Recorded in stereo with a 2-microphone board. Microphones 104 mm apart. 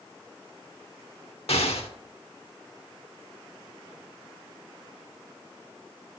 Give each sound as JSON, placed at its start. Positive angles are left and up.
{"t": 1.5, "sound": "an explosion", "side_deg": 80, "distance_m": 1.0}